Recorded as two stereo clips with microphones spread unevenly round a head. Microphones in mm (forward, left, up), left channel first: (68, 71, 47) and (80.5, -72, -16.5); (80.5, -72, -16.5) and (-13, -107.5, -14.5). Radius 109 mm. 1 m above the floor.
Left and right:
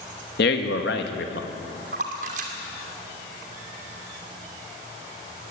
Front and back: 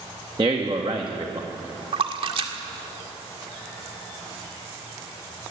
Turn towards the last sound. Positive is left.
turn(degrees=-135)